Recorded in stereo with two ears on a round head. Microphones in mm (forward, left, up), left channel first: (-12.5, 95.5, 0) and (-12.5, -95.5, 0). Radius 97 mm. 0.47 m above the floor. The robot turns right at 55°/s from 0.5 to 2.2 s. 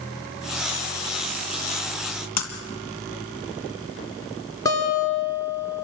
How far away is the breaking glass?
About 3 m.